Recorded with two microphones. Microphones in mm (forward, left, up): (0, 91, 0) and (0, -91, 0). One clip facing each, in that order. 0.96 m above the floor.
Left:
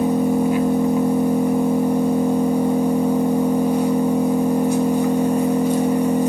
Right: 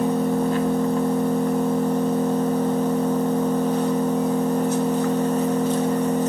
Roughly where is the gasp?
I don't hear a gasp.